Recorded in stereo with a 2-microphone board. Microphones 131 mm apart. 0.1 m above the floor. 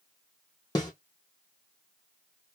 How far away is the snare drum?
About 2.5 m.